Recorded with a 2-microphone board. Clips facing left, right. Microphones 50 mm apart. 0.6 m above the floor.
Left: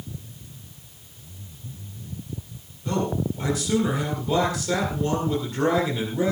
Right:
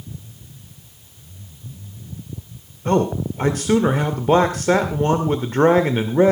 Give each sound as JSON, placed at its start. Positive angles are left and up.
{"t": 2.9, "sound": "a man speaking", "side_deg": -50, "distance_m": 2.0}